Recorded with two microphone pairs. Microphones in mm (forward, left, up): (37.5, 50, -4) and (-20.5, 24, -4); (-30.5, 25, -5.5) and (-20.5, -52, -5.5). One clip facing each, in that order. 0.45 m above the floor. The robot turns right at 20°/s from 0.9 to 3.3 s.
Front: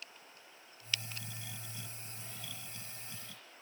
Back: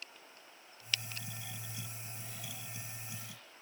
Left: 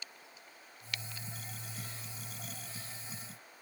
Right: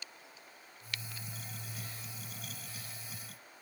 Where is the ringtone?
No ringtone in this recording.